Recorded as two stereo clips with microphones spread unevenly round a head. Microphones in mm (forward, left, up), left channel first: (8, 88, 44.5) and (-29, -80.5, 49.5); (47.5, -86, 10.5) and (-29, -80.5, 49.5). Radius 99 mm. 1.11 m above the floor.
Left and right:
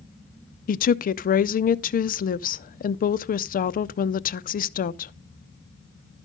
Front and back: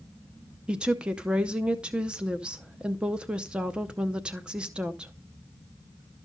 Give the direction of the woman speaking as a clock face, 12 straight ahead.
9 o'clock.